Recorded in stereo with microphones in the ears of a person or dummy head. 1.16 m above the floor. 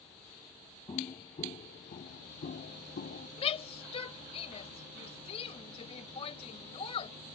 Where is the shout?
35° left (ahead or behind).